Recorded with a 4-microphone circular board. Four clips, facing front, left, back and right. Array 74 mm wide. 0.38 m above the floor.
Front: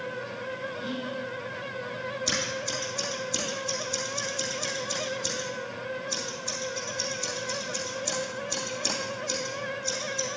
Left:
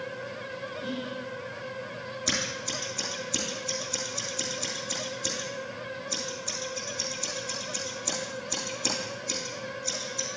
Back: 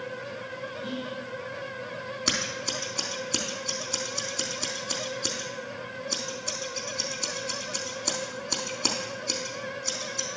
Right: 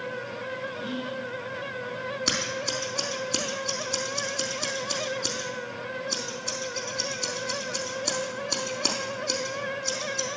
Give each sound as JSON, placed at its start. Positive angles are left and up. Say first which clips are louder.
{"t": 0.8, "sound": "whispering", "louder": "right 2 dB, back 1 dB", "azimuth_deg": -70, "distance_m": 3.5}
{"t": 2.3, "sound": "scissors", "louder": "right 3 dB, front 1 dB", "azimuth_deg": -145, "distance_m": 3.5}